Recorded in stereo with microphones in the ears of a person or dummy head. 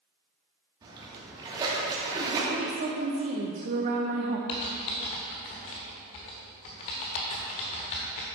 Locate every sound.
0.8 s a splash: 25° right (ahead or behind), 2.5 m
2.5 s a woman speaking: 45° right (ahead or behind), 0.9 m
4.5 s typing on a keyboard: 30° left (ahead or behind), 1.1 m